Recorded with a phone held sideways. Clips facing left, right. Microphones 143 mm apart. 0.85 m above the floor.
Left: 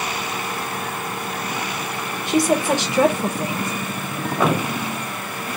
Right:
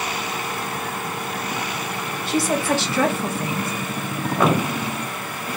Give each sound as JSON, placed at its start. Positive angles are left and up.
{"t": 2.3, "sound": "a woman speaking", "side_deg": 15, "distance_m": 0.9}